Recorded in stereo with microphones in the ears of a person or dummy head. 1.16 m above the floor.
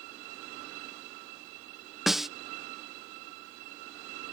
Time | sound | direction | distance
2.1 | a snare drum | centre (ahead or behind) | ?